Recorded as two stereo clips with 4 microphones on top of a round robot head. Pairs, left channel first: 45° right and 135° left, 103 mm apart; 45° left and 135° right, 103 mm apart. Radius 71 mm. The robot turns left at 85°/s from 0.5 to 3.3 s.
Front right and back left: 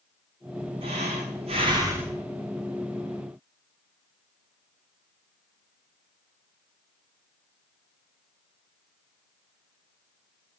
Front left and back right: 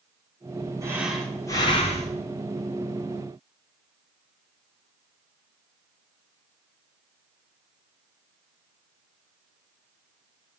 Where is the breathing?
165° left, 2.5 m; by 2.2 s 50° left, 2.5 m.